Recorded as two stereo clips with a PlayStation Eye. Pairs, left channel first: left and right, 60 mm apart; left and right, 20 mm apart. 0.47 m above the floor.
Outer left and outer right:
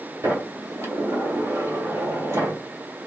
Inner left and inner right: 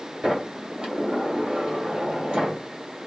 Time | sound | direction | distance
0.2 | a sliding door | 55° right (ahead or behind) | 1.9 m